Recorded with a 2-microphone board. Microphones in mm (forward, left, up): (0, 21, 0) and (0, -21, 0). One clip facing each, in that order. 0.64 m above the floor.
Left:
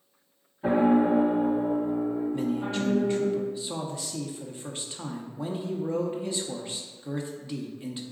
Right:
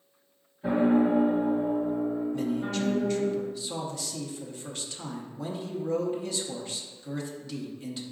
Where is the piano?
40° left (ahead or behind), 0.7 m.